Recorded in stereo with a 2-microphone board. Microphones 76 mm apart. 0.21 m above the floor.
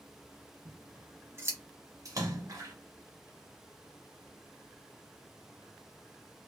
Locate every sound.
0.7 s scissors: 35° right (ahead or behind), 0.8 m
2.0 s a splash: 50° right (ahead or behind), 1.1 m